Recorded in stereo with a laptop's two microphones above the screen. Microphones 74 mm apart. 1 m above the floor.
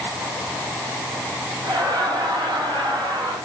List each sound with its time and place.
1.6 s laughter: 75° right (ahead or behind), 6 m; by 3.4 s 85° right, 6 m